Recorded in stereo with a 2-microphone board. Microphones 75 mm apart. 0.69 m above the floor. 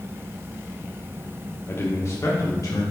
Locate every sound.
1.7 s a man speaking: 35° left (ahead or behind), 1.0 m; by 2.8 s 50° left (ahead or behind), 1.6 m